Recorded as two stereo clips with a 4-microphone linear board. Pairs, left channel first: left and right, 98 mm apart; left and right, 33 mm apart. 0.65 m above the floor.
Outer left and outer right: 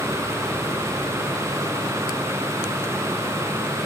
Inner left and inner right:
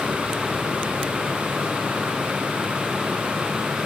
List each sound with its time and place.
Only background noise.